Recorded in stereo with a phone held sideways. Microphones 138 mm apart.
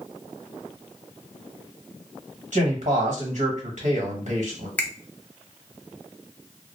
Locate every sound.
2.5 s a man speaking: 65° right (ahead or behind), 1.1 m
4.8 s a finger snap: 10° left (ahead or behind), 0.6 m